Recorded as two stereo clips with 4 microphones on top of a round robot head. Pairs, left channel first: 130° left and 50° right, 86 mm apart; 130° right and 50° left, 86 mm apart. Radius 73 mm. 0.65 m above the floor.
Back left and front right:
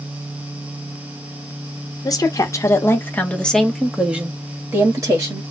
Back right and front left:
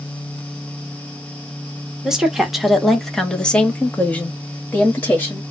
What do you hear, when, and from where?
2.0 s a woman speaking: 130° left, 1.3 m; by 5.4 s 75° right, 1.3 m